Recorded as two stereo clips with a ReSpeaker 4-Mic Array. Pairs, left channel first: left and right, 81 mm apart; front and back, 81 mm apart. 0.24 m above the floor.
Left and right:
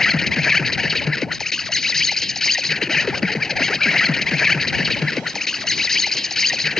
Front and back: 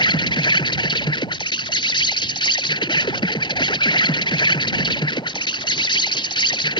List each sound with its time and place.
0.0 s an insect: 5° left